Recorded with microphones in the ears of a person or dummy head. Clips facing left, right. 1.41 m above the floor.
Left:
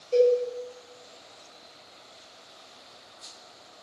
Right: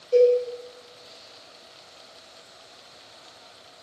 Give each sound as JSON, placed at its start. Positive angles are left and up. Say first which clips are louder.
{"t": 0.1, "sound": "a cowbell", "louder": "right 3 dB", "side_deg": -5, "distance_m": 1.3}